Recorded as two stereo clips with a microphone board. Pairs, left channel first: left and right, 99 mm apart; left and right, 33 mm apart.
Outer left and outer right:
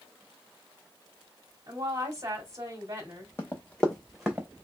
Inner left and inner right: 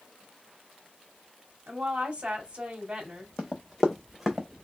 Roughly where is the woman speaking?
Right.